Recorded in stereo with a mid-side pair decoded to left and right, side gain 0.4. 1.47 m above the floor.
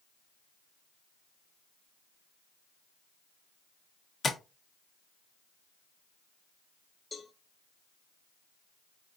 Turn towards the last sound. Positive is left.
turn(degrees=35)